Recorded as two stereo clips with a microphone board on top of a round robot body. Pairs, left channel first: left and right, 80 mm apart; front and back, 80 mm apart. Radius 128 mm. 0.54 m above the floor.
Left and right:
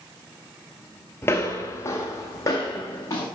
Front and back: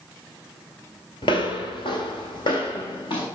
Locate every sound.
1.2 s footsteps: 25° left, 0.5 m; by 3.2 s 30° left, 3 m